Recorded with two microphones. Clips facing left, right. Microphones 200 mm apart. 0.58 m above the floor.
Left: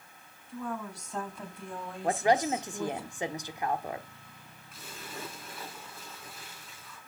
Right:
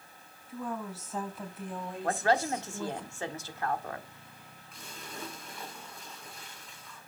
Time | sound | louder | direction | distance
0.5 | a woman speaking | even | 5° right (ahead or behind) | 4.5 m
2.0 | a woman speaking | left 2 dB | 15° left (ahead or behind) | 1.4 m
4.7 | a splash | left 1 dB | 5° left (ahead or behind) | 6 m